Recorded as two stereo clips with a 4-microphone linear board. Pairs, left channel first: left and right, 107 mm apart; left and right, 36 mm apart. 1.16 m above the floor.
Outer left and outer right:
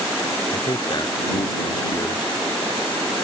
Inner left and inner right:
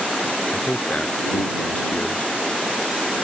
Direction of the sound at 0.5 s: 40° left (ahead or behind).